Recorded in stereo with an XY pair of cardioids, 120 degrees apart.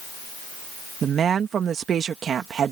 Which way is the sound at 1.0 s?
45° right.